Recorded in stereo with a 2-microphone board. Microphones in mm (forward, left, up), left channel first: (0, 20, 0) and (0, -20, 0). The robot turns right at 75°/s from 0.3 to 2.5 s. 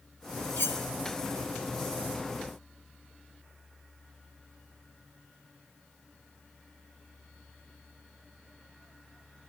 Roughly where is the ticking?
No ticking in this recording.